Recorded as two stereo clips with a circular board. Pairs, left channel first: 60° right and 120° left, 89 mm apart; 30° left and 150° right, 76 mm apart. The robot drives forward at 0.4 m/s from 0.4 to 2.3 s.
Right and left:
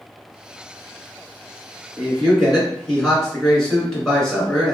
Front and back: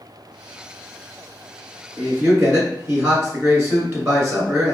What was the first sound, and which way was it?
A man speaking, 140° right.